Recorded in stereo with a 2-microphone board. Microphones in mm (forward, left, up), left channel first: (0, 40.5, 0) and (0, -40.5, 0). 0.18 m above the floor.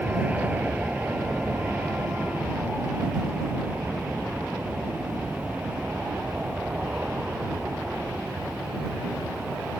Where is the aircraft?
20° right (ahead or behind); by 9.8 s 15° right (ahead or behind).